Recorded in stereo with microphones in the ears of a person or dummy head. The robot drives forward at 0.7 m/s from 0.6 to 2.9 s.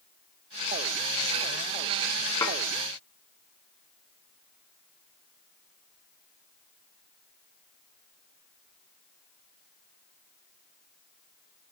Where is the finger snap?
I don't hear a finger snap.